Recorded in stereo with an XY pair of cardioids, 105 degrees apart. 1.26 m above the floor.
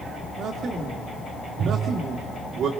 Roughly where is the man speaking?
Ahead right.